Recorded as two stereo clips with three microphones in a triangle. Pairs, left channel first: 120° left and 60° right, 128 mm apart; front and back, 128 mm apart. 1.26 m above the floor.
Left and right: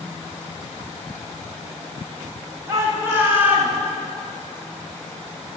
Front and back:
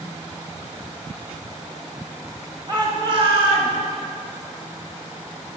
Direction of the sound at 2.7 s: 125° right.